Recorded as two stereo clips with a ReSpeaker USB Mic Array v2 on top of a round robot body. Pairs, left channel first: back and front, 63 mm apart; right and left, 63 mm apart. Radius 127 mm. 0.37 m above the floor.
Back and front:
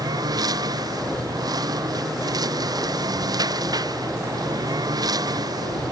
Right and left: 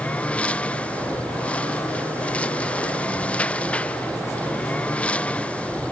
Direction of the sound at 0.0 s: 20° right.